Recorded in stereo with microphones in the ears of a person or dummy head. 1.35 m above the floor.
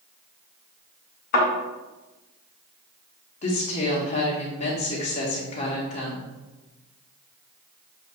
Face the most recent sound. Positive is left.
turn(degrees=40)  # may be behind; listen again after turning